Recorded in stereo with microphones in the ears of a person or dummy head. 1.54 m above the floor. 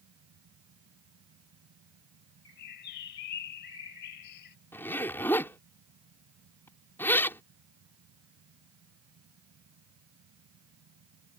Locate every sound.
0.0 s a fan: 90° right
2.5 s a bird: 60° left (ahead or behind)
4.7 s a zipper: 15° left (ahead or behind)